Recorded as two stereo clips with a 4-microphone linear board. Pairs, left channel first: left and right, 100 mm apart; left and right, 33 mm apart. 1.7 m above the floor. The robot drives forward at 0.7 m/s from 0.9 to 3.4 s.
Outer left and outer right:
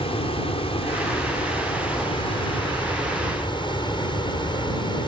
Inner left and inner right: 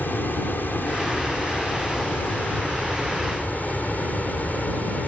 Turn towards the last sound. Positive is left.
turn(degrees=55)  # may be behind; listen again after turning